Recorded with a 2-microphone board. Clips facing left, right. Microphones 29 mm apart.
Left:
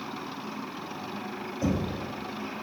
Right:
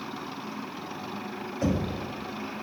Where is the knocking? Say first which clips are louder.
Right 1 dB; 70° right (ahead or behind), 3 m.